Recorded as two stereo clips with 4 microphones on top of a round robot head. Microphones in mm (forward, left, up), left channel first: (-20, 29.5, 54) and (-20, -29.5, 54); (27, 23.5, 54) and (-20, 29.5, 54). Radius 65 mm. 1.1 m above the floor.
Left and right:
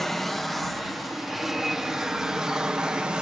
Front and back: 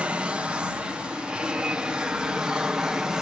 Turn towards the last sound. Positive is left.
turn(degrees=-140)